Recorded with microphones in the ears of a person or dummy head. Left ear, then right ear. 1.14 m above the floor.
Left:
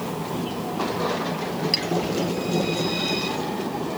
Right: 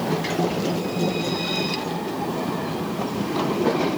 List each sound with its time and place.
1.7 s a clink: 25° left (ahead or behind)